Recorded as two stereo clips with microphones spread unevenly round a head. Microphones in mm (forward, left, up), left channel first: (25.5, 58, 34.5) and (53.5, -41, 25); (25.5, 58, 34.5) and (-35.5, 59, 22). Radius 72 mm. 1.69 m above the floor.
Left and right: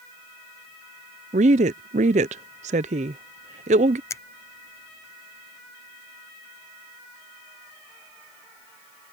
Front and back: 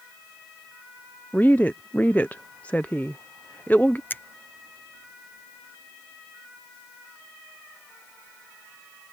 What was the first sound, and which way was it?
A woman speaking, 75° right.